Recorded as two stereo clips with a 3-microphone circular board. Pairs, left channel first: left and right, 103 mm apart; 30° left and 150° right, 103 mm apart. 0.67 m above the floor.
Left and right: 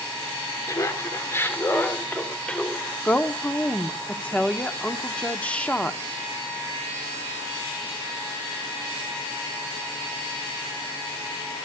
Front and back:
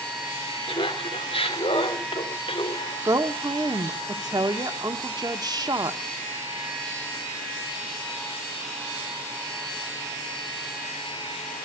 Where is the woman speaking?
165° left, 1.2 m.